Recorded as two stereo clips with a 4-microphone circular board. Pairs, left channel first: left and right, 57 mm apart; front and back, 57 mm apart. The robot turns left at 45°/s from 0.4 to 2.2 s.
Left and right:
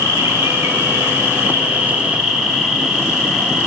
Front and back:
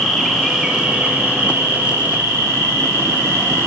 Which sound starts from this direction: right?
An insect, at 0.0 s.